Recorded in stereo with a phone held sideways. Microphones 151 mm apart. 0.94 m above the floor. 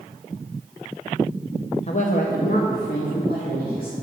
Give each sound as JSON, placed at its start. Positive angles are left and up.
{"t": 1.9, "sound": "a woman speaking", "side_deg": 45, "distance_m": 0.6}